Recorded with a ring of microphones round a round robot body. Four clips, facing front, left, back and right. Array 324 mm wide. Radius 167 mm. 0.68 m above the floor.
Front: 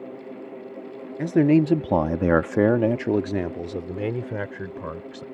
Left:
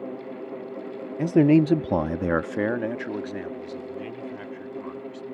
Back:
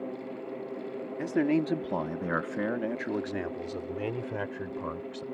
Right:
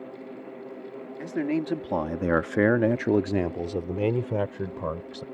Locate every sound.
1.2 s a man speaking: 60° left; by 5.2 s 70° right